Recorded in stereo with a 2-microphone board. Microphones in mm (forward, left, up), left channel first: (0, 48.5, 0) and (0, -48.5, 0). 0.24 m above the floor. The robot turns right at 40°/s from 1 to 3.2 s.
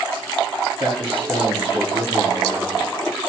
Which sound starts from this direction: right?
A man speaking, at 0.8 s.